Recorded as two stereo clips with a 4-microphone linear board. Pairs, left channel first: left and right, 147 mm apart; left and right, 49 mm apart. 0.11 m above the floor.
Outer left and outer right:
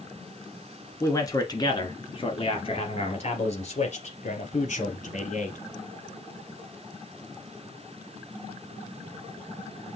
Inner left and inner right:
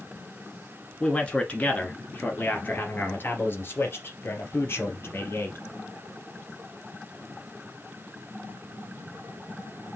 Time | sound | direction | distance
1.0 | a man speaking | 20° left (ahead or behind) | 1.6 m